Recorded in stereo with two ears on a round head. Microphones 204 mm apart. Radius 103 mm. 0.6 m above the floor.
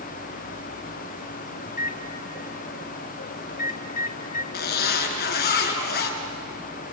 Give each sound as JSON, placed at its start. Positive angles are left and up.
{"t": 1.7, "sound": "a microwave", "side_deg": 40, "distance_m": 1.1}
{"t": 4.5, "sound": "a zipper", "side_deg": 50, "distance_m": 3.0}